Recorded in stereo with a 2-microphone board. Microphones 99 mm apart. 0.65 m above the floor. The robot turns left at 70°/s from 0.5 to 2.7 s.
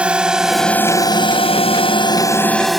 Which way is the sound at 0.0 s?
10° right (ahead or behind).